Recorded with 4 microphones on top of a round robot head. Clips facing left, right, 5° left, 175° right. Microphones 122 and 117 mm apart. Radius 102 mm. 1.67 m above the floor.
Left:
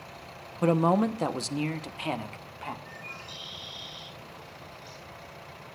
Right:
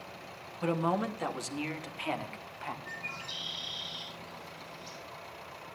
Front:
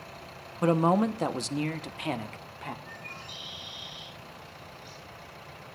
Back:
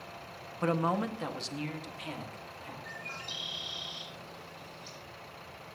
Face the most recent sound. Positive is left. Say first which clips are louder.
# even, even
turn(degrees=-160)